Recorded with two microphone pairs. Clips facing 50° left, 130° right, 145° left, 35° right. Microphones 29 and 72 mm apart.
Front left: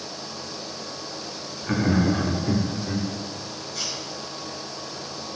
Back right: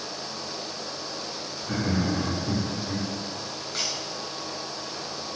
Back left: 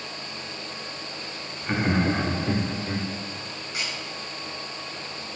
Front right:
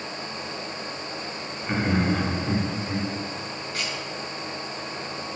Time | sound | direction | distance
1.6 | laughter | 70° left | 1.5 m
3.7 | a camera shutter | 145° right | 4.5 m